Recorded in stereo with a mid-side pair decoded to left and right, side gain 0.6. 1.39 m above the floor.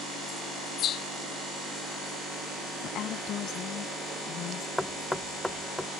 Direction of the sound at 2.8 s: 55° left.